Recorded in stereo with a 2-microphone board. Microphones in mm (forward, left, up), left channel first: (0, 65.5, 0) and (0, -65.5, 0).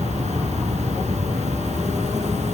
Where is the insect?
60° right (ahead or behind), 4 m.